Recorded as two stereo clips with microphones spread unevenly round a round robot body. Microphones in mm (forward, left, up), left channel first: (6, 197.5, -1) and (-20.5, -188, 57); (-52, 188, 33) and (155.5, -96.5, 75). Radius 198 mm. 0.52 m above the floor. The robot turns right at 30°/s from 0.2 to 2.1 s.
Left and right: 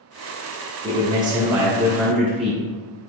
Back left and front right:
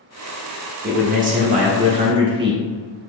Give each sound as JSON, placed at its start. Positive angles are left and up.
{"t": 0.8, "sound": "a man speaking", "azimuth_deg": -20, "distance_m": 0.6}